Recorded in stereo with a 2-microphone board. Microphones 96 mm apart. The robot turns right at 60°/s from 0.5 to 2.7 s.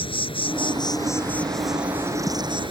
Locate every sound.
0.0 s an insect: 110° left; by 2.7 s 115° right